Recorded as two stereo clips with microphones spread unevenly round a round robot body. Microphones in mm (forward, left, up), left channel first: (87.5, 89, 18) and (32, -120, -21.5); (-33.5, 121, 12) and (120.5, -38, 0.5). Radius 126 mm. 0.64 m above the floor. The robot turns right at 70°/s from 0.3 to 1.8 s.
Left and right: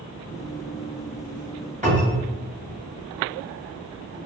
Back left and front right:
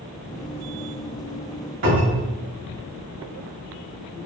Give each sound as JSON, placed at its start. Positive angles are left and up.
{"t": 1.8, "sound": "a cupboard door", "azimuth_deg": -50, "distance_m": 1.7}